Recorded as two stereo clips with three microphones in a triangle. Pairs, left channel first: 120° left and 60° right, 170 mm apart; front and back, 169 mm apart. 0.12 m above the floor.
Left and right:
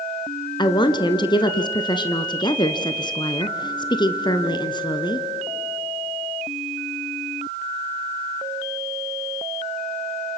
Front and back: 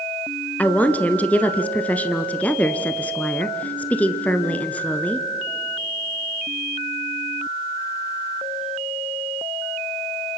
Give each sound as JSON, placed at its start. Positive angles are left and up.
{"t": 0.6, "sound": "a woman speaking", "azimuth_deg": 75, "distance_m": 1.4}